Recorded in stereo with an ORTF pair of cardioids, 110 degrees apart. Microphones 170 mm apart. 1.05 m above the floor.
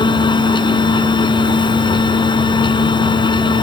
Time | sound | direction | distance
0.0 | a machine running | 25° left | ?